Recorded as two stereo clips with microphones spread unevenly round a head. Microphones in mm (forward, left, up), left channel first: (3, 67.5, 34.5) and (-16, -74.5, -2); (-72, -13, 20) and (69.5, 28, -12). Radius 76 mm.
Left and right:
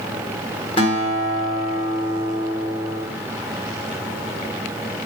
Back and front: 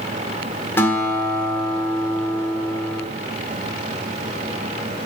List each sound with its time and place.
0.8 s a guitar: 125° left, 1.5 m